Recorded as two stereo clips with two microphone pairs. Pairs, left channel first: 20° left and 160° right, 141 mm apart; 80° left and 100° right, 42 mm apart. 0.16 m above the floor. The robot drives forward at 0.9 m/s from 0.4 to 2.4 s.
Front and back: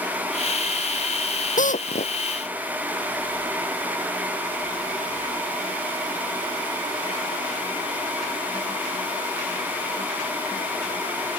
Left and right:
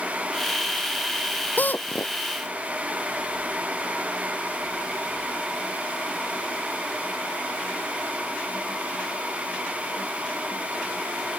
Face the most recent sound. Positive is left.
turn(degrees=45)